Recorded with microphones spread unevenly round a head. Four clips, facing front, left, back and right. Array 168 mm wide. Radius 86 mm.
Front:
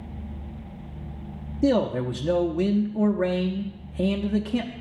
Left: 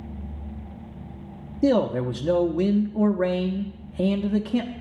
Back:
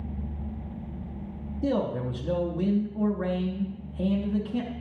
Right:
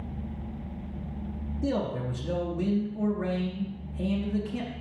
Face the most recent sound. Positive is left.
turn(degrees=40)